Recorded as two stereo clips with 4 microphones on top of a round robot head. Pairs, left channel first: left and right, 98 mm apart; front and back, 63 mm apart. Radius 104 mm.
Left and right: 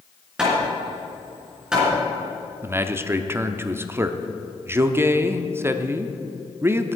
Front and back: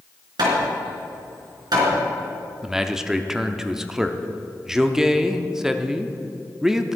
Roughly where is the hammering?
Behind.